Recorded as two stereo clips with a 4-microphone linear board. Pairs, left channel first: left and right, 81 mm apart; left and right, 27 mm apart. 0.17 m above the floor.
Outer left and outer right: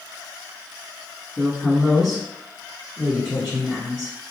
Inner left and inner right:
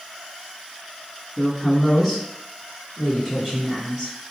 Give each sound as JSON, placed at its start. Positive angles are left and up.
{"t": 1.4, "sound": "a woman speaking", "side_deg": -5, "distance_m": 1.9}